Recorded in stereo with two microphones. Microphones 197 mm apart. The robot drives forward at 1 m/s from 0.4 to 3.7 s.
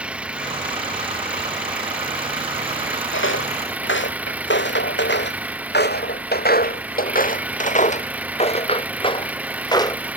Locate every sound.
0.0 s an engine running: 5° right (ahead or behind); by 10.2 s 10° right (ahead or behind)
3.1 s footsteps: 90° left; by 10.0 s 20° left (ahead or behind)